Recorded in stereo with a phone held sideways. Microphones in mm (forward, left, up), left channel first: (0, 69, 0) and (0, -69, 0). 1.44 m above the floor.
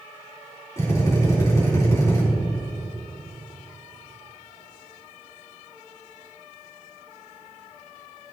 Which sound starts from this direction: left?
A drill, at 0.8 s.